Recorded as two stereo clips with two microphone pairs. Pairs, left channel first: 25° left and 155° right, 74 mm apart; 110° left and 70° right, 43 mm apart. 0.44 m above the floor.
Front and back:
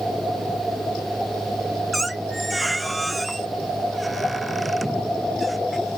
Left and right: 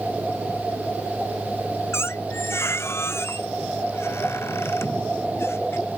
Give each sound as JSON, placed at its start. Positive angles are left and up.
{"t": 1.9, "sound": "a squeak", "azimuth_deg": 110}